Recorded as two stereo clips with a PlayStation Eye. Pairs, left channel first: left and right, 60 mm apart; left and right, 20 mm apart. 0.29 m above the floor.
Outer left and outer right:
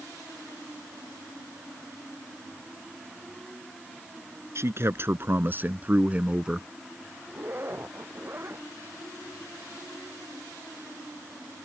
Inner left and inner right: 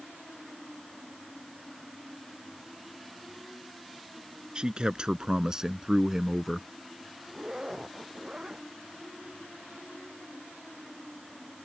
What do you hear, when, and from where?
4.5 s a man speaking: 45° right (ahead or behind); by 6.7 s 10° right (ahead or behind)
7.3 s a zipper: 40° right (ahead or behind)